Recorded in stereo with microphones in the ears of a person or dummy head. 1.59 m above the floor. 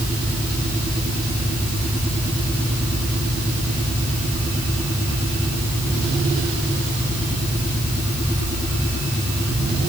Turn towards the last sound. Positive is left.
No sound to turn to.